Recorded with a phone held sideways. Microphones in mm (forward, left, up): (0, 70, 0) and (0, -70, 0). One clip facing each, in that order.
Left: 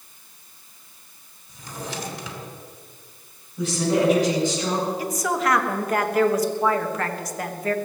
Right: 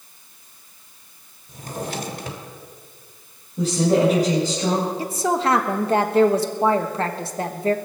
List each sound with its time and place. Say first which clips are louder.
1.5 s a drawer: right 5 dB; 55° right (ahead or behind), 2 m
3.6 s a woman speaking: right 3 dB; 40° right (ahead or behind), 4 m
5.0 s a woman speaking: right 2 dB; 30° right (ahead or behind), 1.2 m